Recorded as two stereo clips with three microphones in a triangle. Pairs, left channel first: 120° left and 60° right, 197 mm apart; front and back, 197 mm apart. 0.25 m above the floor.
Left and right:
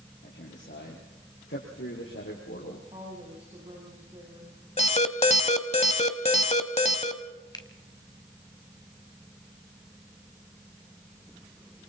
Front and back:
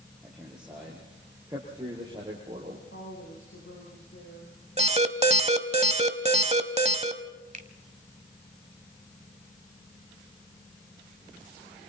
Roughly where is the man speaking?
Left.